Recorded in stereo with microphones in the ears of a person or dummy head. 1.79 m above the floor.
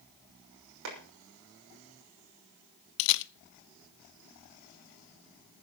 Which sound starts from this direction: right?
A clap, at 0.8 s.